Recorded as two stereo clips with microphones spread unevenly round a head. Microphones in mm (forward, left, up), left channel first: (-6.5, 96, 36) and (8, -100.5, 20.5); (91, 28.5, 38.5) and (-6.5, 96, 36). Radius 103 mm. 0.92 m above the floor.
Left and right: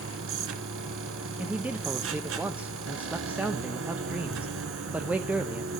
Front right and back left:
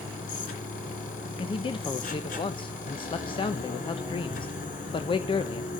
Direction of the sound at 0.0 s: 60° right.